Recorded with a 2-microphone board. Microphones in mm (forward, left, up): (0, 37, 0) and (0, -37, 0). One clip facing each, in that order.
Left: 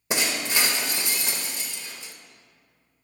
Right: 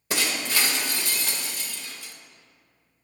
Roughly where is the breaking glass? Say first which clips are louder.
Left 1 dB; left.